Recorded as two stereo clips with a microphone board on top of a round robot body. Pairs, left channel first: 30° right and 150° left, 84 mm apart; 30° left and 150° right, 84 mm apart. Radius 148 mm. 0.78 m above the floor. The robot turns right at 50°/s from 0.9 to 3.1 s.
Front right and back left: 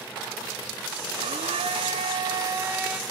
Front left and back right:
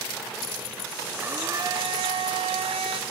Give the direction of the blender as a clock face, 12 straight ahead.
8 o'clock.